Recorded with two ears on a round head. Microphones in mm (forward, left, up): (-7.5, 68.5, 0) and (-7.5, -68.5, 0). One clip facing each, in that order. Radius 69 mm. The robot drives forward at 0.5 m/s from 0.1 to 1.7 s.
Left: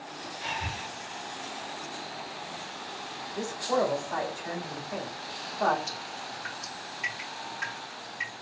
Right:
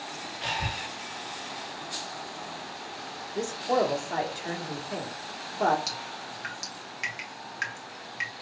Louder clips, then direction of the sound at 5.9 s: Even; 75° right (ahead or behind).